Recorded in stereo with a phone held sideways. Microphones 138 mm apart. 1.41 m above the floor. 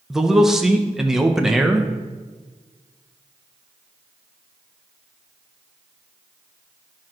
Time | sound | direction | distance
0.1 | a man speaking | 5° right (ahead or behind) | 1.0 m